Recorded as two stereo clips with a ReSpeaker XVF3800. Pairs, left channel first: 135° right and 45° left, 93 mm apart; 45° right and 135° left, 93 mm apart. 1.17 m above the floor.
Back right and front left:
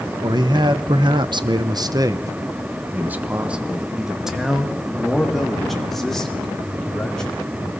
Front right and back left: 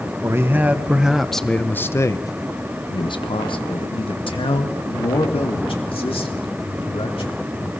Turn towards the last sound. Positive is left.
turn(degrees=-50)